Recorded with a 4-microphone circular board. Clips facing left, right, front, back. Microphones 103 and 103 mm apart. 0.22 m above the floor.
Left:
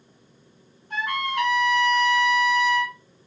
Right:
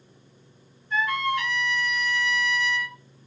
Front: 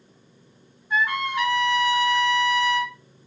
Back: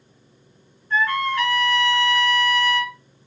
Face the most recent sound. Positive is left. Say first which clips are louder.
# right 2 dB, back 3 dB
turn(degrees=75)